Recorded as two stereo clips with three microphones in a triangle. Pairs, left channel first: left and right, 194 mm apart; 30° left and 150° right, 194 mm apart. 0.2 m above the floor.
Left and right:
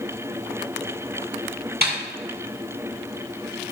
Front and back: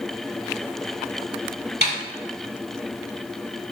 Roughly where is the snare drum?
Behind right.